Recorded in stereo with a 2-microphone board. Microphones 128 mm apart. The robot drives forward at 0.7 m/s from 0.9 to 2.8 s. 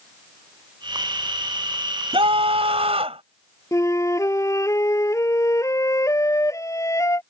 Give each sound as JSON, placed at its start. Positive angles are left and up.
{"t": 2.1, "sound": "a scream", "side_deg": -45}
{"t": 3.7, "sound": "a flute", "side_deg": 25}